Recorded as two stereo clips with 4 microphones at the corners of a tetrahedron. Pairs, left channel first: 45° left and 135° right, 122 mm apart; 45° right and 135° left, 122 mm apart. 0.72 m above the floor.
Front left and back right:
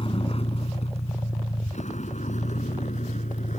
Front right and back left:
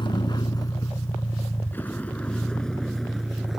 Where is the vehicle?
5° left; by 3.6 s 50° left.